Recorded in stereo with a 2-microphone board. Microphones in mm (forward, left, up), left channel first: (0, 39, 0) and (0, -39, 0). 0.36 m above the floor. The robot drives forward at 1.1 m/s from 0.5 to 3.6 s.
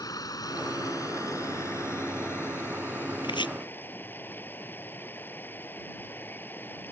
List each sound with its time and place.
0.0 s running water: 55° left (ahead or behind); by 6.9 s 25° left (ahead or behind)
3.2 s chopping: 90° left; by 3.5 s 80° left